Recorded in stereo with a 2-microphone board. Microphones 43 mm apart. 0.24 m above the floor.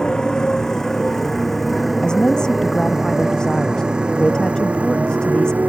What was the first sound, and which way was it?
A motorcycle, 15° left (ahead or behind).